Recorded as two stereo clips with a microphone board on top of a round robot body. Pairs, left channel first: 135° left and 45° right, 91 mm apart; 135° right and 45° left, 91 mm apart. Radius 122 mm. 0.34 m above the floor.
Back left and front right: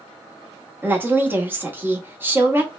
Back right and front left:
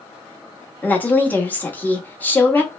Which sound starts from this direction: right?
A woman speaking, at 0.8 s.